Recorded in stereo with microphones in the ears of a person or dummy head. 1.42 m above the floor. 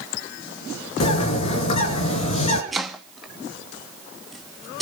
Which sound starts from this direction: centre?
Chopping, at 2.7 s.